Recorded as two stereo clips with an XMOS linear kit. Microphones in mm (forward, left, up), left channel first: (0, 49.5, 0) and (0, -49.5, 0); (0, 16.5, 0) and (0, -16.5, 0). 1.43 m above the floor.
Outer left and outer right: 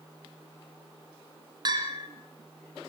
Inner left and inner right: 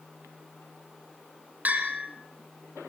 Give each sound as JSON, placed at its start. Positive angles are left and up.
{"t": 1.6, "sound": "a bell", "side_deg": -45, "distance_m": 3.0}